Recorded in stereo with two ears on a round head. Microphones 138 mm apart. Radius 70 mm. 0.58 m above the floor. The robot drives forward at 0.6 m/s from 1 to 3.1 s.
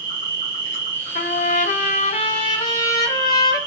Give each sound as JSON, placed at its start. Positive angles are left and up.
{"t": 0.0, "sound": "an insect", "side_deg": -60, "distance_m": 1.5}
{"t": 1.1, "sound": "a trumpet", "side_deg": 50, "distance_m": 0.5}